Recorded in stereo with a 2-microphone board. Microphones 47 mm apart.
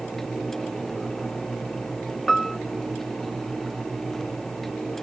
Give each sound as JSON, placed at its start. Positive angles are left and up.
{"t": 2.3, "sound": "a piano", "side_deg": 5}